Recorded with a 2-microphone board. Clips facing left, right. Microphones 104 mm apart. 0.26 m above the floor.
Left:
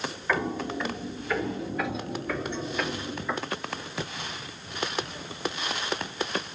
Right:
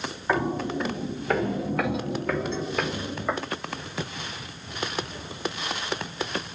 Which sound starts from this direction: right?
Footsteps, at 0.3 s.